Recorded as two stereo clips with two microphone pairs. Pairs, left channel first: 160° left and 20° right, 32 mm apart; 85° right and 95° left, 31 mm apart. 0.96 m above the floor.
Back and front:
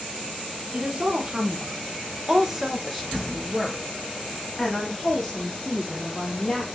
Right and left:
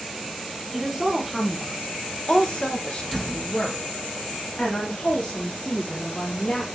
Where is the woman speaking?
20° left, 1.1 m; by 6.7 s 135° right, 3 m.